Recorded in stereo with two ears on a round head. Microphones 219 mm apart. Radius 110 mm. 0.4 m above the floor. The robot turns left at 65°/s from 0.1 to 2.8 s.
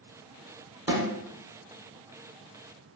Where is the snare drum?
10° right (ahead or behind), 0.7 m; by 1.1 s 25° right (ahead or behind), 0.7 m.